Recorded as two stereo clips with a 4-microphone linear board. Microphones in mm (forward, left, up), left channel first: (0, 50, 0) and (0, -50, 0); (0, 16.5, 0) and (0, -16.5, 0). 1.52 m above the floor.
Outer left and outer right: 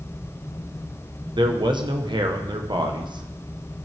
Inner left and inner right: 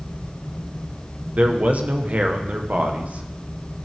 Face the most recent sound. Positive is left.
turn(degrees=-50)  # may be behind; listen again after turning